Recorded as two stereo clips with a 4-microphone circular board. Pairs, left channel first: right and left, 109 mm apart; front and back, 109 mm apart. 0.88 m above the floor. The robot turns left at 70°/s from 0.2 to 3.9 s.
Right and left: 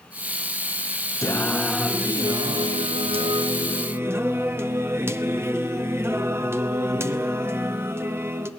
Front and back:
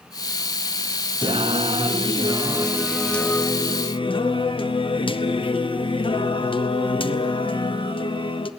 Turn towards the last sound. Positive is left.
turn(degrees=25)